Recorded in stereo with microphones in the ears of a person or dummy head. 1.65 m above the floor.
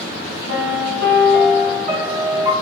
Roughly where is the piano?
Right.